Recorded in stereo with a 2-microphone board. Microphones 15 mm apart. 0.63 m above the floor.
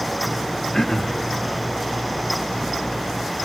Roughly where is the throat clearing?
Left.